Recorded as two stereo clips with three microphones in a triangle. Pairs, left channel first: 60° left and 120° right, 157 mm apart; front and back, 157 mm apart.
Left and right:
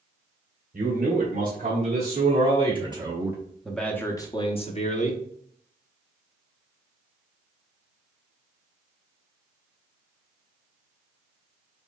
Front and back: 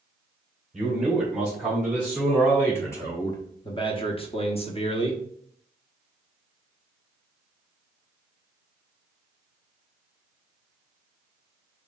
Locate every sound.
0.7 s a man speaking: 90° right, 2 m; by 5.2 s 50° left, 1.1 m